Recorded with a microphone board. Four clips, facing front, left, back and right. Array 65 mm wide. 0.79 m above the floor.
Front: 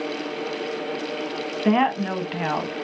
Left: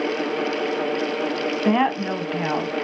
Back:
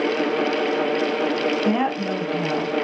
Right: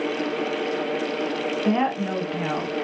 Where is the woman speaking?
50° left, 1.0 m; by 2.8 s 15° left, 1.3 m.